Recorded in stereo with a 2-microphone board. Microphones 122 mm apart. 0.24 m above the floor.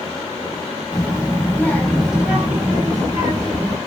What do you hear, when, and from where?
0.9 s a child speaking: 40° left (ahead or behind), 1.1 m; by 3.8 s 50° right (ahead or behind), 1.5 m